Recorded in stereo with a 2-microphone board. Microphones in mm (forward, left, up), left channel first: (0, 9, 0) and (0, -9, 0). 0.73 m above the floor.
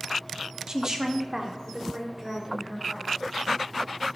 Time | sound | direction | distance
0.7 | a woman speaking | 35° right (ahead or behind) | 1.1 m